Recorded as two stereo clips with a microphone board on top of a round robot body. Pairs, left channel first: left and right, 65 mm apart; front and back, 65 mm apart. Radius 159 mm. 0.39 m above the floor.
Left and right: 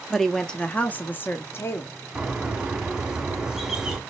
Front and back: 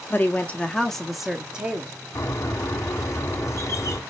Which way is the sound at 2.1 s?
15° right.